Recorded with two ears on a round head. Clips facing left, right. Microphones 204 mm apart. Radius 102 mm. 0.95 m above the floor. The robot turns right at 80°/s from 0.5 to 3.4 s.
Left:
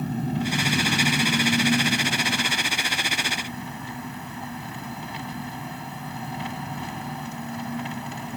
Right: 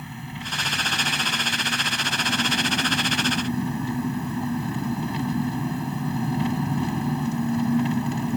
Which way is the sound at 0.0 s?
40° left.